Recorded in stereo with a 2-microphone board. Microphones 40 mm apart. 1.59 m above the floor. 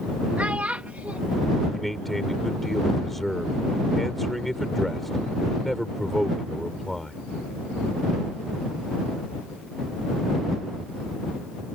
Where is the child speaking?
40° right (ahead or behind).